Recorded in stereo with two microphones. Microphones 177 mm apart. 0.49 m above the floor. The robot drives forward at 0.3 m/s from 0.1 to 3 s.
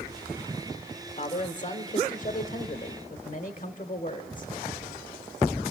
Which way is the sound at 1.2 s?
45° left (ahead or behind).